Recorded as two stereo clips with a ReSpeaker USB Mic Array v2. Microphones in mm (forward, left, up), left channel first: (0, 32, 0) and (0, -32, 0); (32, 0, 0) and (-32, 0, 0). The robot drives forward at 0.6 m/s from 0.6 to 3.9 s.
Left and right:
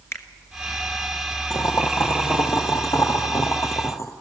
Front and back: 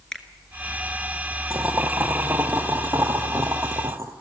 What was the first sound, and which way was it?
A finger snap, 75° left.